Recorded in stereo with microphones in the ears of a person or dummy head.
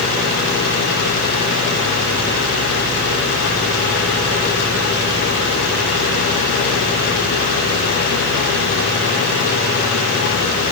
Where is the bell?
No bell in this recording.